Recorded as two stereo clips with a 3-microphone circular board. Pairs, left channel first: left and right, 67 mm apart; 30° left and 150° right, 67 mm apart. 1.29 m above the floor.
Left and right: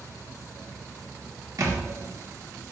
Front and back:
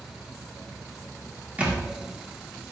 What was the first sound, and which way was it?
A thud, 90° right.